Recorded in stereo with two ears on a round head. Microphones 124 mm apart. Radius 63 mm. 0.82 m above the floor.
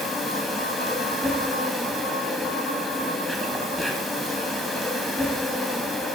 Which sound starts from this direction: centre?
An insect, at 0.0 s.